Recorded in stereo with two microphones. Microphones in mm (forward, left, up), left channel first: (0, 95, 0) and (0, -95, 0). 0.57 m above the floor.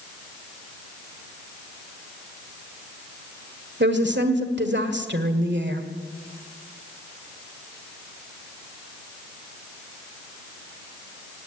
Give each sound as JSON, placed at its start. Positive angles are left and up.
{"t": 3.8, "sound": "a woman speaking", "side_deg": -70, "distance_m": 1.6}